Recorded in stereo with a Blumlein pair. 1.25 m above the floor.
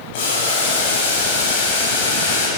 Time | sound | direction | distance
0.1 | boiling | 50° left | 9.5 m